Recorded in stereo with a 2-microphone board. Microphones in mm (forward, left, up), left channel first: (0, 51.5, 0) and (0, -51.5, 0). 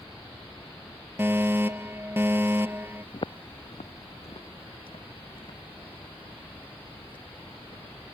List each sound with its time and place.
1.2 s a fire alarm: 20° right (ahead or behind)
3.1 s footsteps: 45° left (ahead or behind); by 7.8 s 55° left (ahead or behind)